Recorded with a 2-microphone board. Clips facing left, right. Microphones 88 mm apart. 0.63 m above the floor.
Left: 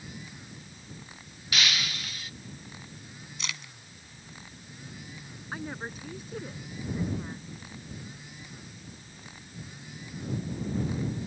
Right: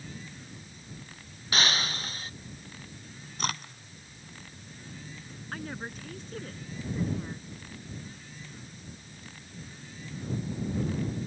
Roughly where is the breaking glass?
Right.